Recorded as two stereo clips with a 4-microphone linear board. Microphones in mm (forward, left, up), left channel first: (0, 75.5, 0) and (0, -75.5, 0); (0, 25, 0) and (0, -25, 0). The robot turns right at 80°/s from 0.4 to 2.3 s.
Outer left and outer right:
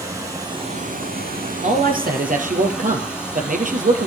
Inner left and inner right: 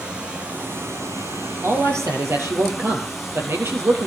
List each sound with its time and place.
0.0 s running water: 160° right, 5.5 m; by 4.1 s 5° right, 5.5 m
1.6 s a man speaking: 125° right, 3.5 m; by 4.1 s 70° right, 3.5 m